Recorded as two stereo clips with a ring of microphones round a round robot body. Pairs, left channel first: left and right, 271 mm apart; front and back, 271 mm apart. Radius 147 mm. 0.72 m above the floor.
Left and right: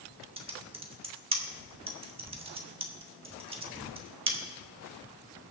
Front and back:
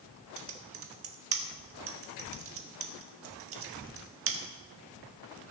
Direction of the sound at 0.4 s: 155° right.